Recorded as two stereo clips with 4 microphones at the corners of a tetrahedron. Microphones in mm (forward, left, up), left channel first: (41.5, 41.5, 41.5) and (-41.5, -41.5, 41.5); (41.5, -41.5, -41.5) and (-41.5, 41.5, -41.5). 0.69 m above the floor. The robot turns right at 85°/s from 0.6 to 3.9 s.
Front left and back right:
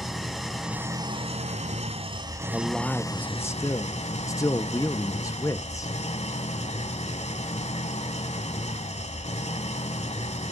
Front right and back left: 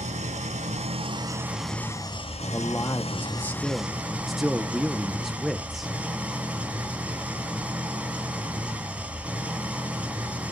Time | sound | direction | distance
0.0 | an engine running | 135° left | 1.5 m
2.5 | a man speaking | 70° right | 0.6 m